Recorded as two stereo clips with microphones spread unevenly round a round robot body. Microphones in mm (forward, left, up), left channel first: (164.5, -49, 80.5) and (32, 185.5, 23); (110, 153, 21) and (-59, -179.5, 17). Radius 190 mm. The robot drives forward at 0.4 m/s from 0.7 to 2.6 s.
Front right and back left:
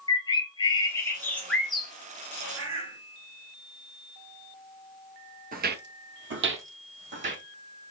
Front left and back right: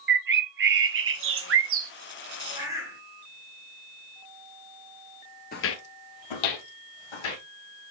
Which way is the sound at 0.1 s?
145° right.